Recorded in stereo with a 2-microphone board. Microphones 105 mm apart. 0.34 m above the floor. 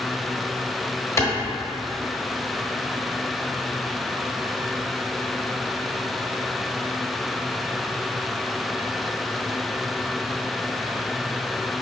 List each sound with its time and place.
1.2 s a clap: 25° left (ahead or behind), 1.1 m